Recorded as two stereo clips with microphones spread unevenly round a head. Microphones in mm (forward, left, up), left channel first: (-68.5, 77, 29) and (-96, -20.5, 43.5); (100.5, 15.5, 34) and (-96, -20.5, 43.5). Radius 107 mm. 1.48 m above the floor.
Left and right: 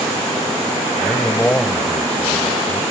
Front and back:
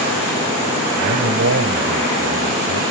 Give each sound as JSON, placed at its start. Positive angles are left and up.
{"t": 1.0, "sound": "a man speaking", "azimuth_deg": 150}